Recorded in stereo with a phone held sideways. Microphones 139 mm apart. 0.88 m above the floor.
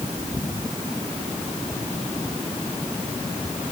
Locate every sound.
Only background noise.